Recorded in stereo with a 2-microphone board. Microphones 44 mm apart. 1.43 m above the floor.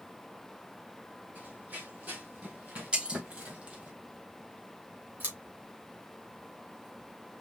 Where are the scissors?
40° right (ahead or behind), 2 m.